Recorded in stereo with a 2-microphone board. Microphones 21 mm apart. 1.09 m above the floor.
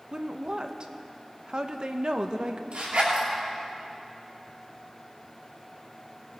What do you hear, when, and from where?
0.1 s a woman speaking: 45° right (ahead or behind), 0.9 m
2.7 s a zipper: 65° right (ahead or behind), 5.5 m